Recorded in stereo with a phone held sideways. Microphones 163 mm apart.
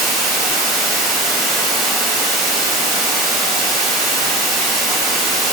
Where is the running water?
Centre (ahead or behind), 2 m.